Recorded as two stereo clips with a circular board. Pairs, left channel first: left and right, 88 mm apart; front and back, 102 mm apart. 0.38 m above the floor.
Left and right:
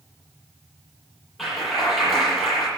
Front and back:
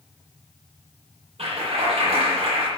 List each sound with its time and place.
1.4 s a clap: straight behind, 9.5 m